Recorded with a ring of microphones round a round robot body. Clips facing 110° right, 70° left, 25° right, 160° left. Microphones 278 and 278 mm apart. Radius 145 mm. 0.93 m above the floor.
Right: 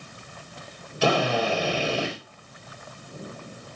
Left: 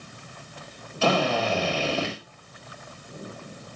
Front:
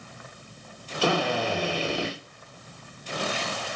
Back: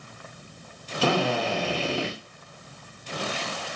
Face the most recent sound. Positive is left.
turn(degrees=175)